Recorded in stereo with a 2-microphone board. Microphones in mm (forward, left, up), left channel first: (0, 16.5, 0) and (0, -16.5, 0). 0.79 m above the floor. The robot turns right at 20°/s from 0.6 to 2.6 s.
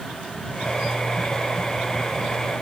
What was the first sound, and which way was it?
Only background noise.